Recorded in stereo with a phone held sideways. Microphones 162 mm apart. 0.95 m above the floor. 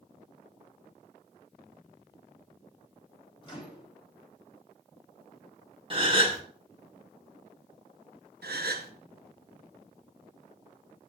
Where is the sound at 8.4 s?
80° right, 0.8 m.